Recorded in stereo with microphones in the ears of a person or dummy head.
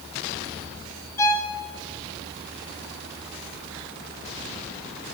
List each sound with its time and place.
1.2 s a violin: 15° left (ahead or behind), 0.8 m